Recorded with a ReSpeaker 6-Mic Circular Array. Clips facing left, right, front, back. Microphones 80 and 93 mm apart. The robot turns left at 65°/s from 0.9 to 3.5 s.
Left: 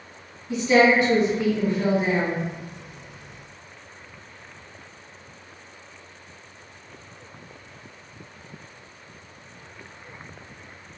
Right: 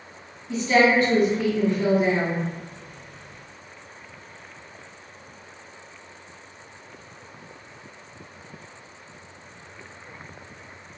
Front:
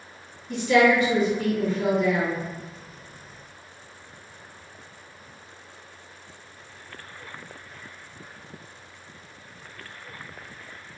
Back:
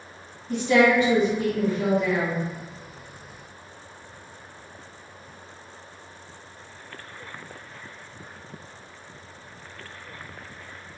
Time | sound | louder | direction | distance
0.5 | a woman speaking | left 1 dB, even | 160° left | 1.6 m